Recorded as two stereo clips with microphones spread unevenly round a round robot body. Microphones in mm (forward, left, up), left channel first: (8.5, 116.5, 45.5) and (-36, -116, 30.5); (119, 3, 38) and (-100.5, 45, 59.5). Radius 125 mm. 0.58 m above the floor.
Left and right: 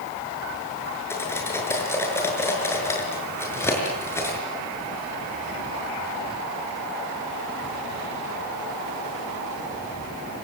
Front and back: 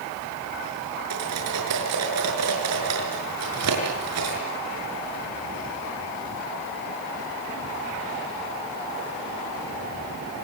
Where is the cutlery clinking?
160° left, 6.5 m.